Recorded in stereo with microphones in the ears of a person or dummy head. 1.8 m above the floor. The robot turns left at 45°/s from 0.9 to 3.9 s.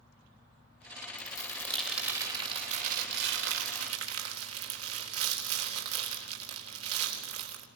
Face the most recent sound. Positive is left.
turn(degrees=-95)